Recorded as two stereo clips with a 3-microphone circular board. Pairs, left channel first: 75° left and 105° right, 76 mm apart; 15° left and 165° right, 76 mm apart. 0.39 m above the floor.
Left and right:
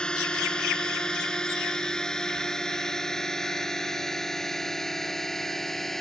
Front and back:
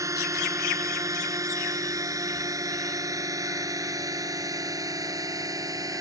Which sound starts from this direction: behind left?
A drone, at 0.0 s.